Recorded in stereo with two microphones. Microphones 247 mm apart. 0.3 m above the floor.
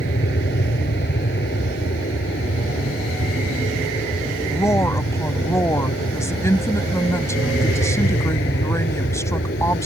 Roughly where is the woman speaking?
Centre.